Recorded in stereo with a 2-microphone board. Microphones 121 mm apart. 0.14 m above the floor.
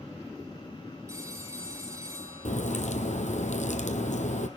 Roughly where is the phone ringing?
Right.